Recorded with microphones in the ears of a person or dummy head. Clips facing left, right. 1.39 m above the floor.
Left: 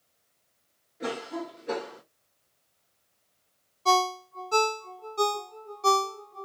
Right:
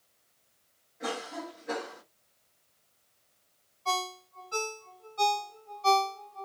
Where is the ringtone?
65° left (ahead or behind), 0.5 m.